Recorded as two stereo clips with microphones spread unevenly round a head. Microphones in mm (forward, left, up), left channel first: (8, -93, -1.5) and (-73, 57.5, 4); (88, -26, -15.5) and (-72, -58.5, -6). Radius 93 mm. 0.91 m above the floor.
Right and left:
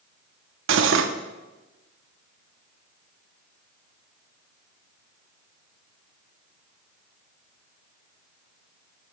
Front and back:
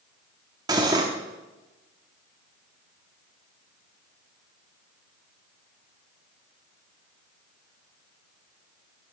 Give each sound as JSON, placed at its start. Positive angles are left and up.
{"t": 0.7, "sound": "cutlery clinking", "azimuth_deg": 120, "distance_m": 0.8}